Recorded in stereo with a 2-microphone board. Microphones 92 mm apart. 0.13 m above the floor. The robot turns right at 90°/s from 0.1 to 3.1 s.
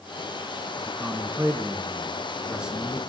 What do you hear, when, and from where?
0.8 s a man speaking: 5° left (ahead or behind), 1.1 m